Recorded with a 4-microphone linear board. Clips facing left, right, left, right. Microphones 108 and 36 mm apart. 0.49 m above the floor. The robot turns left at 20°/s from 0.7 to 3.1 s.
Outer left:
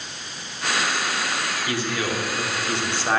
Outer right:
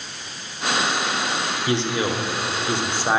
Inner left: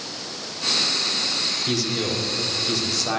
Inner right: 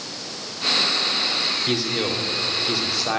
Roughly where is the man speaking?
Right.